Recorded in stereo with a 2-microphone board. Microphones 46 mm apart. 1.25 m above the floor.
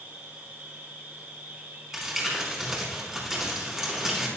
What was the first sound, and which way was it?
An insect, 50° right (ahead or behind).